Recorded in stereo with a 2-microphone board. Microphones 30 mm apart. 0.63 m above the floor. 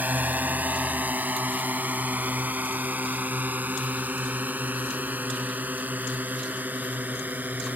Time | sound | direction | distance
0.0 | a drone | 75° right (ahead or behind) | ?